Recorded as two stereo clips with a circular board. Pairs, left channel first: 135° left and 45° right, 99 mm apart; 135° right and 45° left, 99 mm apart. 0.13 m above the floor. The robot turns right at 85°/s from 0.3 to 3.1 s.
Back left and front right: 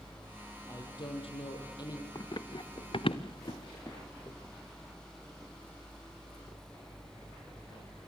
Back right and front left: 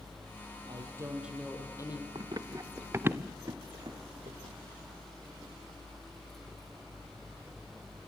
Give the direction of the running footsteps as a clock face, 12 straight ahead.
9 o'clock.